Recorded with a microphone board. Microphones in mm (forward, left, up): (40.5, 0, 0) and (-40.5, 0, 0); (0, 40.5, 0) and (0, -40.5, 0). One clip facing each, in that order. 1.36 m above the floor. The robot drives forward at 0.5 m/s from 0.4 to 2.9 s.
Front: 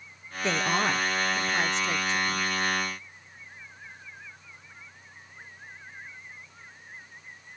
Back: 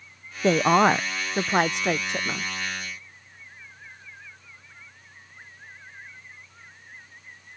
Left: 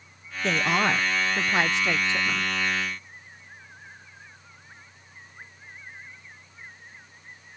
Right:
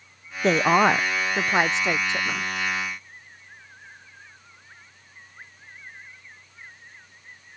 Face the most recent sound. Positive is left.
turn(degrees=-165)